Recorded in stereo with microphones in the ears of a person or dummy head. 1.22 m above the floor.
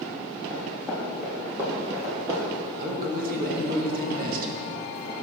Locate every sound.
0.5 s running footsteps: 5° left (ahead or behind), 2.5 m; by 2.7 s 35° right (ahead or behind), 1.8 m
2.8 s a man speaking: 50° right (ahead or behind), 1.4 m